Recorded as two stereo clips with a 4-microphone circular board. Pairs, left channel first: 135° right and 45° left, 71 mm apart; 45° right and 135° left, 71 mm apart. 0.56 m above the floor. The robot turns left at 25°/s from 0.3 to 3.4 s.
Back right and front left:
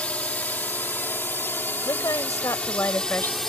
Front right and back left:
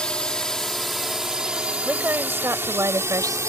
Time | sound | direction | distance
0.0 | a drone | 100° right | ?
1.9 | a woman speaking | 160° right | ?